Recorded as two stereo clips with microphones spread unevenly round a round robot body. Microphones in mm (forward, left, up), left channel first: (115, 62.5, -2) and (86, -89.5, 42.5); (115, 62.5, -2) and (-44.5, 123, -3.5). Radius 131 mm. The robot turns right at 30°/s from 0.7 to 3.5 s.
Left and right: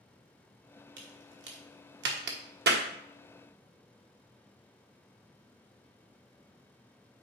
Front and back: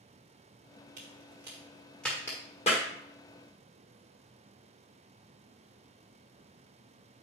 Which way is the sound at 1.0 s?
140° right.